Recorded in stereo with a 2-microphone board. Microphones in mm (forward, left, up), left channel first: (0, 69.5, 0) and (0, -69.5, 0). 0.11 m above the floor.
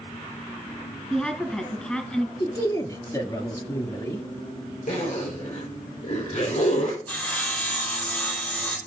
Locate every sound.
1.1 s a woman speaking: 5° left (ahead or behind), 1.3 m
2.4 s a man speaking: 25° left (ahead or behind), 1.9 m
4.9 s a zipper: 60° left (ahead or behind), 3 m
7.1 s sawing: 10° left (ahead or behind), 2.5 m